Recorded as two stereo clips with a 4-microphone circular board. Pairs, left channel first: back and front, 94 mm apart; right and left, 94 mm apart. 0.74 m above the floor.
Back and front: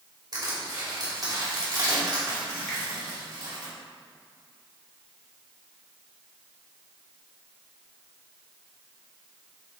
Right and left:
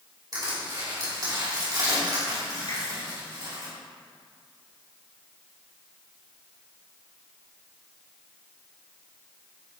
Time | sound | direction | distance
0.3 | crushing | 50° left | 2.5 m
2.7 | a finger snap | 90° right | 2.5 m